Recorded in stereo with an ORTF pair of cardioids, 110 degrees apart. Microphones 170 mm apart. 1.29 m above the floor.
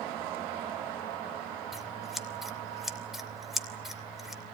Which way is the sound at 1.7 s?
Straight ahead.